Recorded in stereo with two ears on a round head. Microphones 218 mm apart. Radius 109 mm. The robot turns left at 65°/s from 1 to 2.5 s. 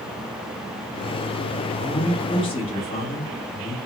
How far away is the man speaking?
About 1.1 m.